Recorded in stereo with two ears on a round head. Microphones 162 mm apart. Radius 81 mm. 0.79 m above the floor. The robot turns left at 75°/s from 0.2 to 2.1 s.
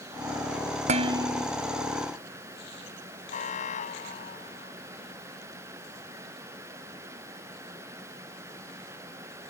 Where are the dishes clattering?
140° right; by 1.5 s 175° left.